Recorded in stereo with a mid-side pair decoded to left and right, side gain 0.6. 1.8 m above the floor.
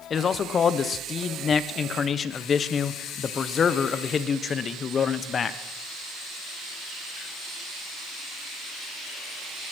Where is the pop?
I don't hear a pop.